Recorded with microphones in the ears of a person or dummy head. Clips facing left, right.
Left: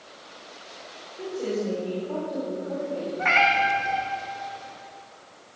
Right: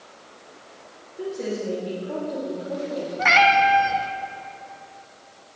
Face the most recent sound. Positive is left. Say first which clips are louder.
# right 6 dB
turn(degrees=-65)  # may be behind; listen again after turning